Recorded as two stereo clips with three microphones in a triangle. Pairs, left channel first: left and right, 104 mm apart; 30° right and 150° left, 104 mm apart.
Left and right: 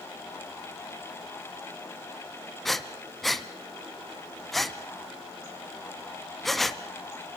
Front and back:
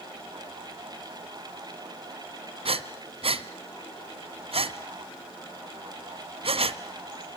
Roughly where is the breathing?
Behind.